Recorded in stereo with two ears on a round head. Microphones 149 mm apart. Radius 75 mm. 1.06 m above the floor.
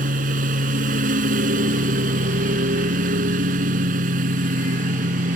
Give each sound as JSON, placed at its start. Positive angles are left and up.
{"t": 0.0, "sound": "a lawn mower", "side_deg": -55}